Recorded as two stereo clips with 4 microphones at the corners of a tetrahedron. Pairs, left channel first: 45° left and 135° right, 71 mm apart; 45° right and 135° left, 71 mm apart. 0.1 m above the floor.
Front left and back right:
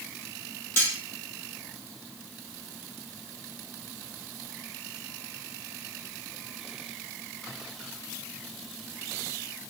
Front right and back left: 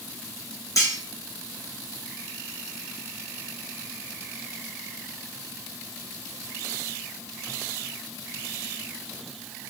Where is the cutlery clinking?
5° right, 2.5 m.